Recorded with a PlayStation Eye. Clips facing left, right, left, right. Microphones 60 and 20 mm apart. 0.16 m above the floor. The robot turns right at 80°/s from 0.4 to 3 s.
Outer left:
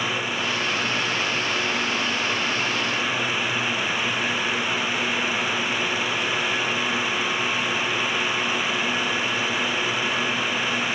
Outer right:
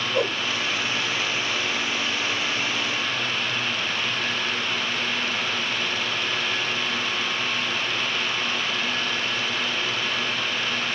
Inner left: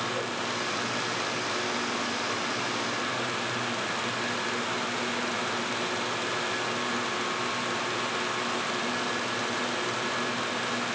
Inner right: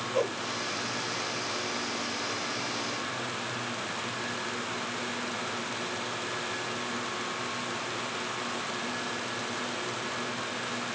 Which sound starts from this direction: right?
A whoosh, at 0.1 s.